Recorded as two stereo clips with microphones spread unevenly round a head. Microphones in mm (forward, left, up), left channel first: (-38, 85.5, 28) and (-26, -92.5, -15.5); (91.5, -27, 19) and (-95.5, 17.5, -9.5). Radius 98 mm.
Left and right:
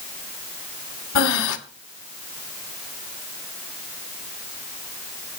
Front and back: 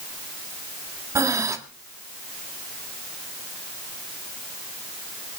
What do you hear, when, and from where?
1.1 s breathing: 90° left, 1.3 m